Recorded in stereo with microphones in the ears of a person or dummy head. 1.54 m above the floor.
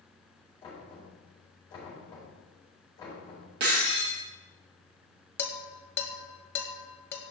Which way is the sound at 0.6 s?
25° left (ahead or behind).